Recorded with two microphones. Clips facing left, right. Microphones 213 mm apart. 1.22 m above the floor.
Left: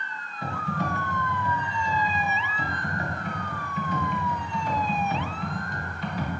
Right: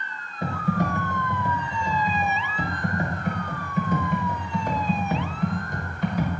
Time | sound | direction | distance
0.4 | typing on a keyboard | 50° right (ahead or behind) | 1.5 m